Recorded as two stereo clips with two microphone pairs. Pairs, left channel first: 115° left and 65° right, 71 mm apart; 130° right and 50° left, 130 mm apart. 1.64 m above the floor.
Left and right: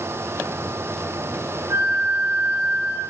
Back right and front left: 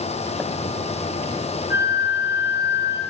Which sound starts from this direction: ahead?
A flute, at 1.7 s.